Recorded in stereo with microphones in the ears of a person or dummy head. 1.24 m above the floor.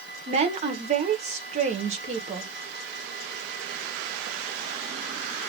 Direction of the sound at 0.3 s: 35° right (ahead or behind).